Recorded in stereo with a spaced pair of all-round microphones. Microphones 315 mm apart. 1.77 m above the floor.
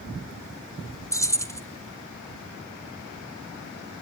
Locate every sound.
1.1 s keys jangling: 10° left (ahead or behind), 1.2 m